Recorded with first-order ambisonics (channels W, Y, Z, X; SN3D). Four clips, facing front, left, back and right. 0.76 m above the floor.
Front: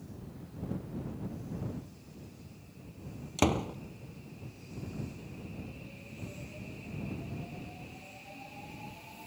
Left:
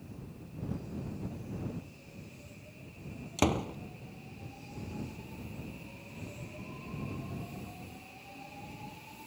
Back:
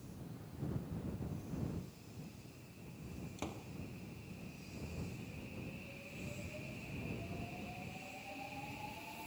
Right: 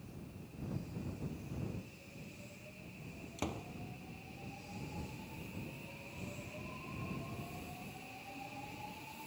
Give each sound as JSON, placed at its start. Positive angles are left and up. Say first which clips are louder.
{"t": 3.4, "sound": "a door slam", "louder": "left 13 dB, front 19 dB", "azimuth_deg": 40}